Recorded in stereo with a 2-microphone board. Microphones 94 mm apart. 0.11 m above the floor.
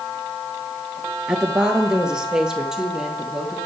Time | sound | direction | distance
1.3 | a woman speaking | 10° right (ahead or behind) | 1.5 m